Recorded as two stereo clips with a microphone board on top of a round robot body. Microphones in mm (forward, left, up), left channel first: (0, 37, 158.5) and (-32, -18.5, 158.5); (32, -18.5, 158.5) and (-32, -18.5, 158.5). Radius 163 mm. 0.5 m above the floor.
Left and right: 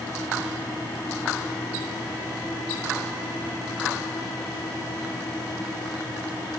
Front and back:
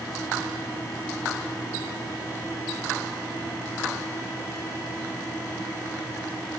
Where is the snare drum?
No snare drum in this recording.